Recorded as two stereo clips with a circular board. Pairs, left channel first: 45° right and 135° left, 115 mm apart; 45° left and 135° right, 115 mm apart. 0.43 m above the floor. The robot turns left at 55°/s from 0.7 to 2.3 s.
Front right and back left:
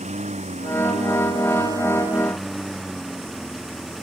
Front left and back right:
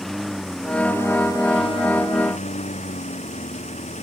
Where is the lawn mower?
135° left; by 4.0 s 45° left.